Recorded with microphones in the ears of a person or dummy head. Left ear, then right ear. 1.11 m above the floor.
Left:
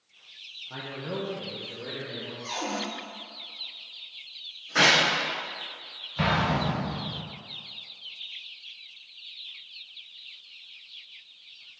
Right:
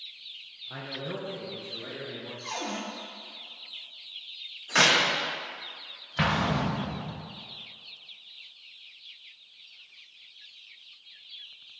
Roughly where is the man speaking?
Centre.